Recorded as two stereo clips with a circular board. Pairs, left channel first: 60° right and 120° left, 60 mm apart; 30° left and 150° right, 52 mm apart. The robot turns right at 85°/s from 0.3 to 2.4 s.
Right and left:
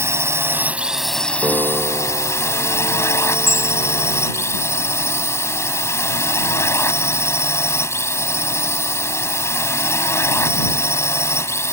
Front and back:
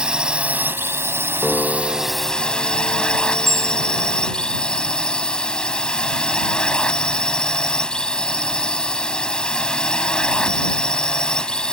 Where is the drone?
145° left; by 11.8 s 40° right.